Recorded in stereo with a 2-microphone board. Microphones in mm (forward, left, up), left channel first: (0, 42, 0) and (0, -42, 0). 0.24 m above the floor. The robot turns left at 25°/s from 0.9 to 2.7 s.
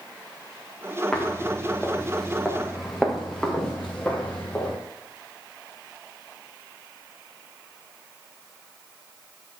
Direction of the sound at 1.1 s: 10° left (ahead or behind).